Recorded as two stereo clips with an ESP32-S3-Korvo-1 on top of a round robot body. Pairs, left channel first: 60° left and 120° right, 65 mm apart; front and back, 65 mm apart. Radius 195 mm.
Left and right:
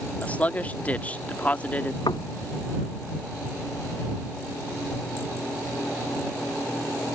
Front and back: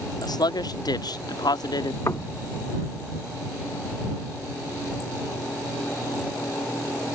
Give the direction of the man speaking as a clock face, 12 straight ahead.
12 o'clock.